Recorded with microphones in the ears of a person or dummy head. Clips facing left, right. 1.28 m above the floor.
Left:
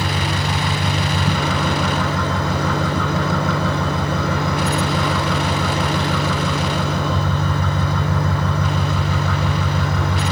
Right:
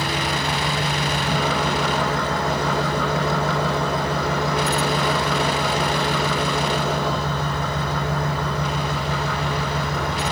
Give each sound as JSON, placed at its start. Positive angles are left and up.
{"t": 0.0, "sound": "an engine running", "side_deg": 75, "distance_m": 7.5}